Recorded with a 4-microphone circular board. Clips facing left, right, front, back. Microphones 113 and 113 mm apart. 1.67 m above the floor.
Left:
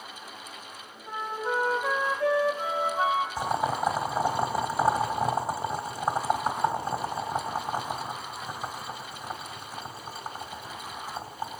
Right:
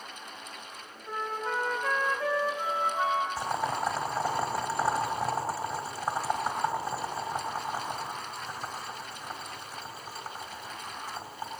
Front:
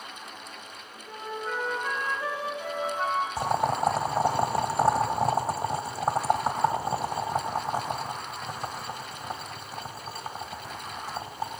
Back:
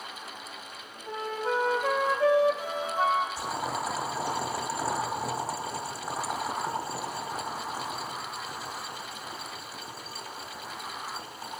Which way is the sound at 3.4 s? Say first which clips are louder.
Left 3 dB, front 6 dB; 20° left.